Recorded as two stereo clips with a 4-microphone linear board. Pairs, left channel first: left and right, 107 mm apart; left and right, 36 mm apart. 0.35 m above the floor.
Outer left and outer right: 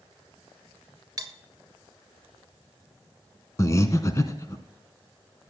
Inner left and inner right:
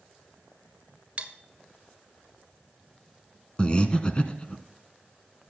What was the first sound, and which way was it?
Cutlery clinking, 35° right (ahead or behind).